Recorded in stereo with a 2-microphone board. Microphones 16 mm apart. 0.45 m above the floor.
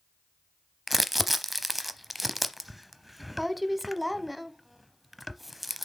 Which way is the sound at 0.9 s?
Centre (ahead or behind).